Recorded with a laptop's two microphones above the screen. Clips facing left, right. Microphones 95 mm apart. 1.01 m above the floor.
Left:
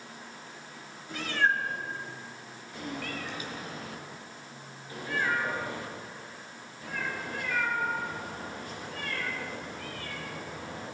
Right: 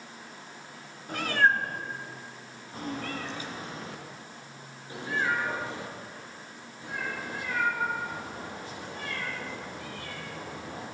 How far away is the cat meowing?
About 1.9 m.